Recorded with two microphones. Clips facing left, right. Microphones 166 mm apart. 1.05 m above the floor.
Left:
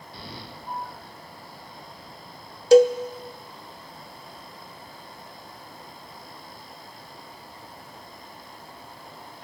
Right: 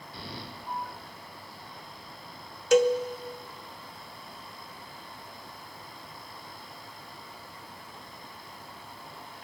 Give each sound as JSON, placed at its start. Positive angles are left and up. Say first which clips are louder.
{"t": 2.7, "sound": "a cowbell", "louder": "left 7 dB", "side_deg": 35, "distance_m": 0.5}